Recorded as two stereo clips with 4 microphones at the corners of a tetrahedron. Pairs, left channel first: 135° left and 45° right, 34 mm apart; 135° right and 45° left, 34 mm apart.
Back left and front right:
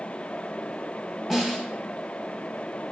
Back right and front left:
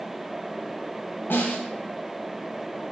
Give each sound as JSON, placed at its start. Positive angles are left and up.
{"t": 1.3, "sound": "a snare drum", "azimuth_deg": -125, "distance_m": 0.8}